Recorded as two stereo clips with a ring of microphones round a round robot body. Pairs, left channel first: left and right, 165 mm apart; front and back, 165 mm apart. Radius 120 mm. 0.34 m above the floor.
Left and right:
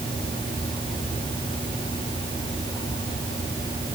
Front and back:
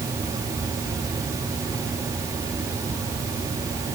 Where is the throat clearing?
No throat clearing in this recording.